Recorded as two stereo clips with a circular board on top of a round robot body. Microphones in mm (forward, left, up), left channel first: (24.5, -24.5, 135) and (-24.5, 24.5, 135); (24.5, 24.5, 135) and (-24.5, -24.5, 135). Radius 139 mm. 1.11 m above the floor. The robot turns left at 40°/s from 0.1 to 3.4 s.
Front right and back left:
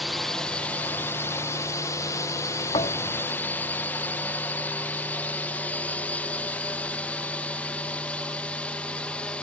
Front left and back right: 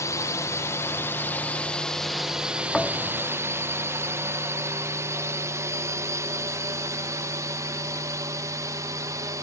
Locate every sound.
0.0 s a drone: 45° left; by 9.4 s 115° right
2.7 s a thud: 40° right; by 3.2 s 60° right